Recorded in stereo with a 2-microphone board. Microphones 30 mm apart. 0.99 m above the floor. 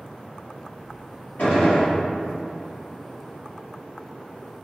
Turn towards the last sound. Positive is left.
turn(degrees=65)  # may be behind; listen again after turning